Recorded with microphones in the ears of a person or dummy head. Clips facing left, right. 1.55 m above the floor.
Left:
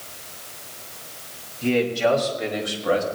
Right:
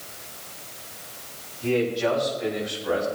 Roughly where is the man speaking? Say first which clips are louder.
Left 3 dB; left.